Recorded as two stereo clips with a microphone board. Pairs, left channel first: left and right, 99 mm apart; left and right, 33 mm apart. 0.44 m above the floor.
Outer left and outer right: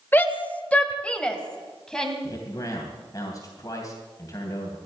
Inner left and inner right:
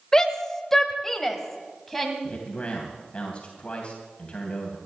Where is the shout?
20° left (ahead or behind), 1.2 m; by 2.1 s 5° left (ahead or behind), 2.5 m.